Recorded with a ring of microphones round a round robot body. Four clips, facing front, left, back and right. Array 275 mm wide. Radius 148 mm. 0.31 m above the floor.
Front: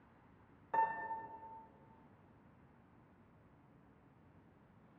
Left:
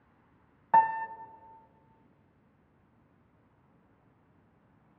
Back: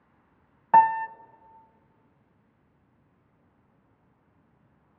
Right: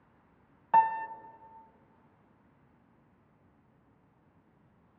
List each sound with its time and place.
0.7 s a piano: 170° left, 0.6 m